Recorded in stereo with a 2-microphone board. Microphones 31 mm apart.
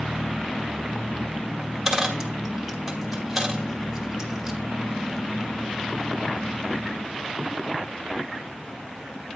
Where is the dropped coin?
10° right (ahead or behind), 1.2 m.